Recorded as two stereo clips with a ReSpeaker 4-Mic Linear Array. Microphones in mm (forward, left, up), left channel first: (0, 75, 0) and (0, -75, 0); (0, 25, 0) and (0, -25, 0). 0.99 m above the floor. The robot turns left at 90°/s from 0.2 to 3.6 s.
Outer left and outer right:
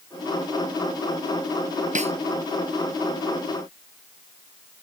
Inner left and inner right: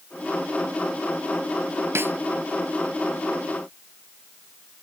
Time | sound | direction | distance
1.9 | a snare drum | 55° right (ahead or behind) | ?